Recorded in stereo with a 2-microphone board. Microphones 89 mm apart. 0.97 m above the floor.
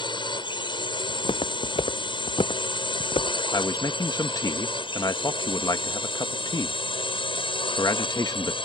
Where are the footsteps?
80° left.